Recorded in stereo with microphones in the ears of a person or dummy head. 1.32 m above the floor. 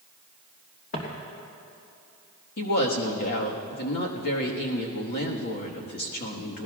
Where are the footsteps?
50° left (ahead or behind), 3 m.